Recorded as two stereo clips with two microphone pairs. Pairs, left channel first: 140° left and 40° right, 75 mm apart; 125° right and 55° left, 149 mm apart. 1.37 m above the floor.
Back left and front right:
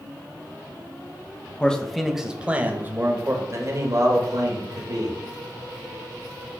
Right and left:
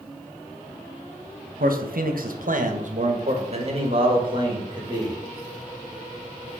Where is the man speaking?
65° left, 1.0 m; by 5.2 s 5° right, 2 m.